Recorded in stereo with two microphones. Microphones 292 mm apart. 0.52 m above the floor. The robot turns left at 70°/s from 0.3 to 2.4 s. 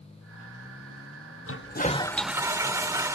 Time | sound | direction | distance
1.5 | a toilet flushing | 55° left | ?